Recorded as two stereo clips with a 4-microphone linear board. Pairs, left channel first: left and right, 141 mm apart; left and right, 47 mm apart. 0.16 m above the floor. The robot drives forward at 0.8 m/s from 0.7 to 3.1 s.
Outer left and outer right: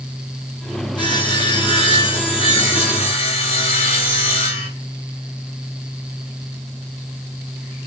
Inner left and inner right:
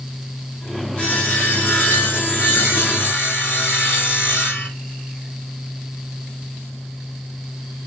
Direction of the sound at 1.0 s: 30° left (ahead or behind).